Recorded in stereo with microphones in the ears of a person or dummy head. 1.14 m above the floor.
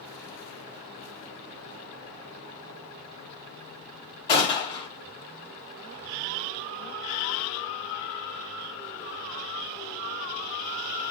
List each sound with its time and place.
4.3 s a gunshot: 30° left (ahead or behind), 1.4 m